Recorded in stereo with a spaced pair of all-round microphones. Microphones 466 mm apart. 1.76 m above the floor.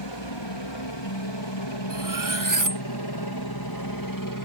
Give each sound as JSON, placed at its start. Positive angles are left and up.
{"t": 0.0, "sound": "a helicopter", "side_deg": 65}
{"t": 1.9, "sound": "cutlery clinking", "side_deg": -40}